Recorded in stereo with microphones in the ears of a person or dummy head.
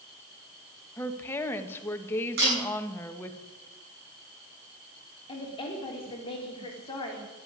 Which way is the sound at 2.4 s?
55° right (ahead or behind).